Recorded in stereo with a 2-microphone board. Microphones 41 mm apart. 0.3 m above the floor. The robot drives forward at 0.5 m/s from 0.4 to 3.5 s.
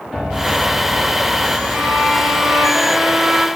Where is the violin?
20° right (ahead or behind), 7.5 m; by 3.5 s 15° right (ahead or behind), 8.5 m.